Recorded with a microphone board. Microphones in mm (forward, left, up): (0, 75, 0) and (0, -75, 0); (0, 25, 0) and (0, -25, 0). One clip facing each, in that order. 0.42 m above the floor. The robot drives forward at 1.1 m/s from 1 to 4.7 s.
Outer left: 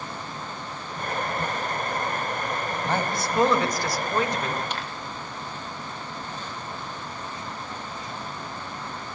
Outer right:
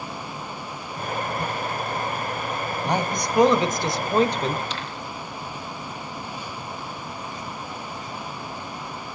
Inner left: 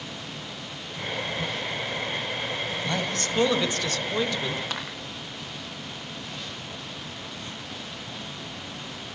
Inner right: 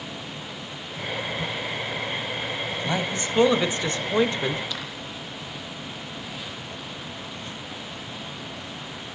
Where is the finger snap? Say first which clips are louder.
Even, inner left 1 dB; 55° left (ahead or behind), 9.5 m.